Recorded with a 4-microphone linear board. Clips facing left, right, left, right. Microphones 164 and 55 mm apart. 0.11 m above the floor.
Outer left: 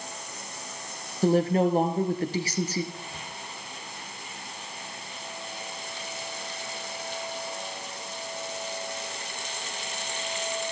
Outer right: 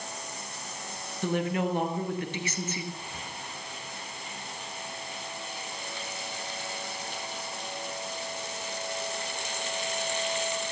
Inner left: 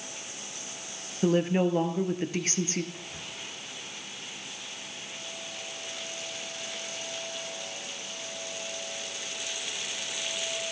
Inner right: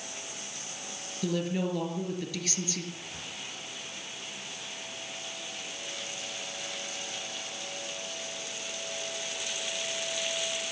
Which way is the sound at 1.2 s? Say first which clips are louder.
Outer left 7 dB, inner left 6 dB; 35° left (ahead or behind).